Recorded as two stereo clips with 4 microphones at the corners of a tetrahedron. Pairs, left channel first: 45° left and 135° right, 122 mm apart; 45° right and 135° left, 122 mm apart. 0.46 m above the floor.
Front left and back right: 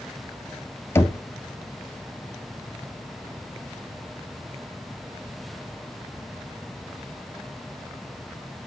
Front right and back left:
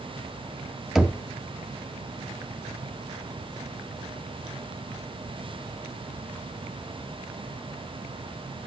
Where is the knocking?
50° left, 0.6 m.